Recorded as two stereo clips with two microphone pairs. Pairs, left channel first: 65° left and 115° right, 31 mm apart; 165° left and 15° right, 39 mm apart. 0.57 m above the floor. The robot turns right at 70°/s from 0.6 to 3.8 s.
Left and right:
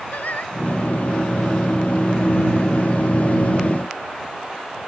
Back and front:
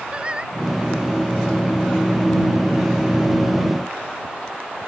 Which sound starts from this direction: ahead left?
Singing, at 0.1 s.